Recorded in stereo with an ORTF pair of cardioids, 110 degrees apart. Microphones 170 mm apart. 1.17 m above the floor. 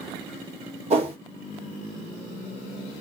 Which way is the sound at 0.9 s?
40° right.